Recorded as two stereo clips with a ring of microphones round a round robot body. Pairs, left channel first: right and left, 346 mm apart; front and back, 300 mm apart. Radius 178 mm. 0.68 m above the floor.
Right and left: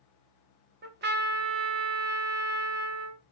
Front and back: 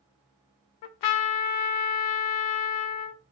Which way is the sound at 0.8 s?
25° left.